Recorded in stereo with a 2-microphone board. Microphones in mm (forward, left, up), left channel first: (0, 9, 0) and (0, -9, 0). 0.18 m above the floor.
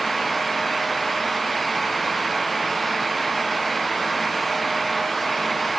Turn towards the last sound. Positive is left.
No sound to turn to.